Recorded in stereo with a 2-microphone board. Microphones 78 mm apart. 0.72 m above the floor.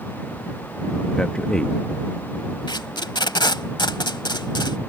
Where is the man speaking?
10° left (ahead or behind).